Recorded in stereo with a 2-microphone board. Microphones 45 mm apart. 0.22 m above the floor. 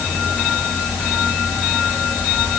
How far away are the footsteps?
I don't hear footsteps.